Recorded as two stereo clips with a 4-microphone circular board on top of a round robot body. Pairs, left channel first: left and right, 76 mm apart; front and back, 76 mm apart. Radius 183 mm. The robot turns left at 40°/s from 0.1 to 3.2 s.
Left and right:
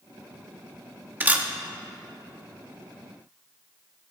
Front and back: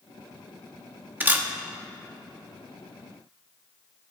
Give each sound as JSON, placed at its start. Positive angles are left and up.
{"t": 1.2, "sound": "a camera shutter", "azimuth_deg": -135, "distance_m": 1.4}